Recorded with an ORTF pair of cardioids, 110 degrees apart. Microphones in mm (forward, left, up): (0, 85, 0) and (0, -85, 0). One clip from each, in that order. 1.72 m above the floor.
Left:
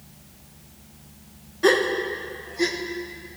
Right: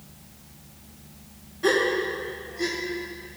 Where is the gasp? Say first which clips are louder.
Left 2 dB; 35° left, 1.5 m.